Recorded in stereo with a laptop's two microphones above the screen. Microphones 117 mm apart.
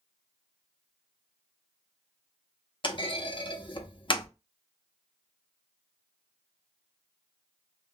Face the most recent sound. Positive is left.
turn(degrees=45)  # may be behind; listen again after turning